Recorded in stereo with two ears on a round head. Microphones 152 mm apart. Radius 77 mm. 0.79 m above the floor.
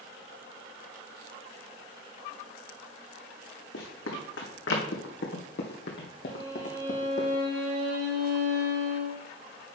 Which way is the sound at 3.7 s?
75° left (ahead or behind).